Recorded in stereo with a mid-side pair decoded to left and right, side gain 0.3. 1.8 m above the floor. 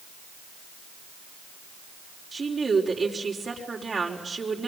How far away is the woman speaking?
About 6 m.